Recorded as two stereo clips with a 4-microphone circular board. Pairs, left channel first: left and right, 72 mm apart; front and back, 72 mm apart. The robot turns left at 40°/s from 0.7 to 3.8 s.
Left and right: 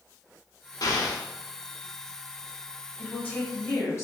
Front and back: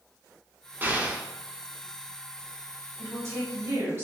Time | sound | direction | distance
0.8 | an explosion | 115° left | 0.5 m
3.0 | a woman speaking | 160° left | 1.5 m